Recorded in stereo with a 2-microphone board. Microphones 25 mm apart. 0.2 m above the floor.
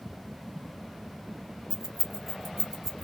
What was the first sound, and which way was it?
Keys jangling, 15° right (ahead or behind).